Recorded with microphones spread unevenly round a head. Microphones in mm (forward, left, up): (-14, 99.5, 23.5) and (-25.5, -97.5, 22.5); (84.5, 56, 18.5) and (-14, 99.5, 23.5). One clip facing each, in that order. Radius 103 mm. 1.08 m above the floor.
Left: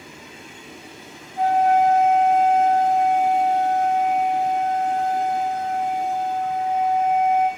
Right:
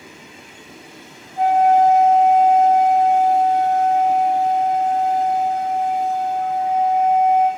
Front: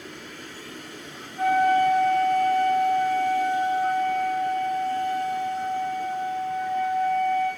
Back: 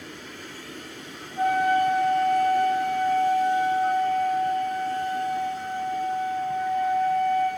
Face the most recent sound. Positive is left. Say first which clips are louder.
# right 3 dB, front 2 dB
turn(degrees=-150)